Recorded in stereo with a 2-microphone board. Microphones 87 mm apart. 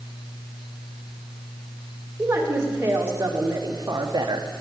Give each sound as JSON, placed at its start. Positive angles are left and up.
{"t": 2.2, "sound": "a woman speaking", "side_deg": -25, "distance_m": 3.0}